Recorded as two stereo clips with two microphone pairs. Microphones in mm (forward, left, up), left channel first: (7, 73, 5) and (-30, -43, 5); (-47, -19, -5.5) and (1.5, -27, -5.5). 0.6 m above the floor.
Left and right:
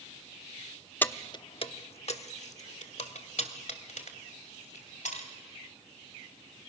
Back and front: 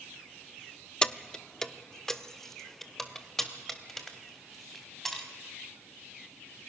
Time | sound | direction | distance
1.0 | keys jangling | 130° left | 0.5 m